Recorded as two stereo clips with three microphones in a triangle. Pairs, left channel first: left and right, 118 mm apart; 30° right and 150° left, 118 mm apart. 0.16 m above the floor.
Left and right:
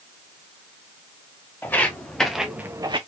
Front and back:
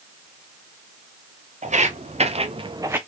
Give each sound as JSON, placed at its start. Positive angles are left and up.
{"t": 1.6, "sound": "footsteps", "azimuth_deg": 160, "distance_m": 1.9}